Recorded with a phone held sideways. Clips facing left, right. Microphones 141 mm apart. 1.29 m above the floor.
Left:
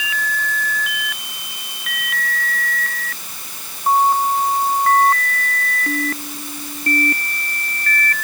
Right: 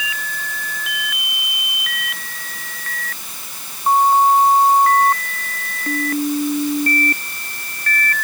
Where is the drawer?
No drawer in this recording.